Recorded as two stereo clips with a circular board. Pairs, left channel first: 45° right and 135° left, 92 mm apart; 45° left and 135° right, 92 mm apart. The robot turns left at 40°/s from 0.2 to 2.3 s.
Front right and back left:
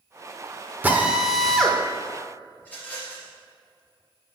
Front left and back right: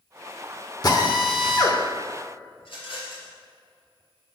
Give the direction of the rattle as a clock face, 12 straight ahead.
11 o'clock.